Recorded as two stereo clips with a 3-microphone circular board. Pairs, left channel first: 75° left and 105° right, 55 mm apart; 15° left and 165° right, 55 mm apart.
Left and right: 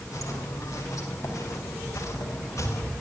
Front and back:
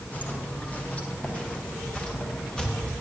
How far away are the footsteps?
About 8 m.